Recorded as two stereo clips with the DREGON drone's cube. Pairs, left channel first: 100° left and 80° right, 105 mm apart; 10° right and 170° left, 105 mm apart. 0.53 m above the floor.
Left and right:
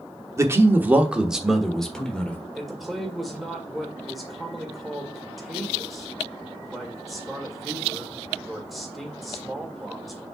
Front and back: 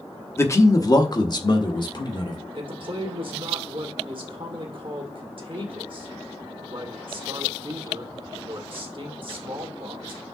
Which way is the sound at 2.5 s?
170° right.